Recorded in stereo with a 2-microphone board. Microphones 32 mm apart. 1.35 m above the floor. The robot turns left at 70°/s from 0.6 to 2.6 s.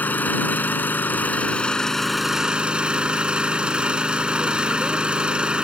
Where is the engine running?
110° left; by 5.7 s 30° right.